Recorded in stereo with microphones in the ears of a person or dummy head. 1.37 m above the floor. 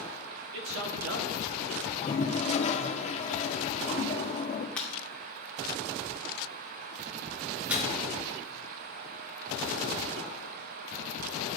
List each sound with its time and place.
0.5 s a man speaking: 65° right (ahead or behind), 1.5 m
1.9 s a toilet flushing: 40° left (ahead or behind), 0.9 m
4.8 s breaking glass: 5° left (ahead or behind), 1.9 m
7.7 s a microwave: 10° right (ahead or behind), 1.9 m